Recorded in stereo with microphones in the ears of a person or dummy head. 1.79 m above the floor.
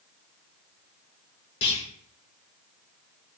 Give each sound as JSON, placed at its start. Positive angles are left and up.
{"t": 1.6, "sound": "a clunk", "side_deg": 30, "distance_m": 3.5}